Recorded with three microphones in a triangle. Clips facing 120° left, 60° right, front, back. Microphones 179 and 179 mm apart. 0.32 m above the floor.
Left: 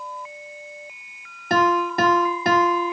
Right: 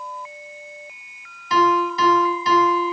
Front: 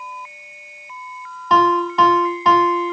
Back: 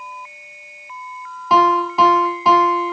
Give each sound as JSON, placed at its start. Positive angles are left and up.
{"t": 1.5, "sound": "a piano", "azimuth_deg": 95, "distance_m": 1.4}